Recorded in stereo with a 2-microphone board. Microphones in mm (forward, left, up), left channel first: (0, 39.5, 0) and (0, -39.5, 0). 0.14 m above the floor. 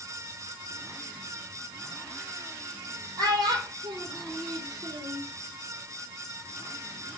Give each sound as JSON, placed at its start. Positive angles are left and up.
{"t": 3.2, "sound": "a child speaking", "side_deg": -60, "distance_m": 2.0}